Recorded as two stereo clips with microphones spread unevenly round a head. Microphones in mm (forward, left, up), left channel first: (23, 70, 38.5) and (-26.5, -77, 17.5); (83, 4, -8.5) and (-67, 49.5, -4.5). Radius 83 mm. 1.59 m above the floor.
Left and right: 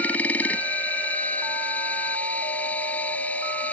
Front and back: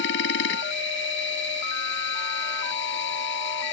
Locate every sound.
0.0 s a machine running: 10° right